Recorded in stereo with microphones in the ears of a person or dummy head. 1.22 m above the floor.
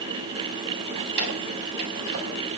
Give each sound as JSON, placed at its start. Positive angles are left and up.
{"t": 1.0, "sound": "keys jangling", "side_deg": -60, "distance_m": 5.5}